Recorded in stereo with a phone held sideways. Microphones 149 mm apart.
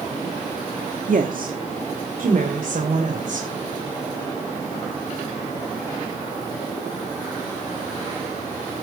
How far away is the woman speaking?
About 1.4 m.